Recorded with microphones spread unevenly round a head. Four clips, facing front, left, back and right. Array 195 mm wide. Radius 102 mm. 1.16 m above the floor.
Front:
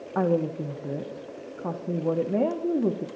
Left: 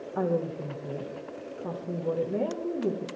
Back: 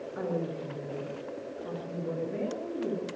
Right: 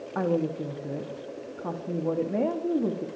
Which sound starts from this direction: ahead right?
A woman speaking, at 0.1 s.